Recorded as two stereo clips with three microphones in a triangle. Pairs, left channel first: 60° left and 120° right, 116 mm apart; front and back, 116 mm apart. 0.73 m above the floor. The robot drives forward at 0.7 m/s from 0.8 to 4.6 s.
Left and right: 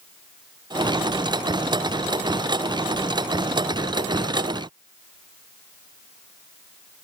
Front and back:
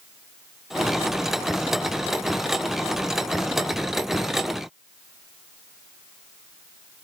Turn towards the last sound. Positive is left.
No sound to turn to.